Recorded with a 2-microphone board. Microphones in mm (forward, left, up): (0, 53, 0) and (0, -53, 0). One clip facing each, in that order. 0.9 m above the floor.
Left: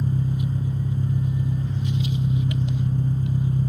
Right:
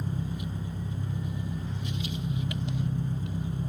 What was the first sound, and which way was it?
An engine running, 55° left (ahead or behind).